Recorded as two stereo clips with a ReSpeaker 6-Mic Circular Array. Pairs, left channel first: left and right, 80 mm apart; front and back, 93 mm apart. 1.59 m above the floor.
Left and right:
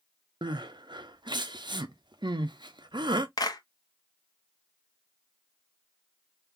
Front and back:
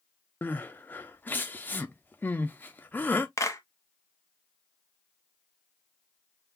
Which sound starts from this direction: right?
Crying, at 0.4 s.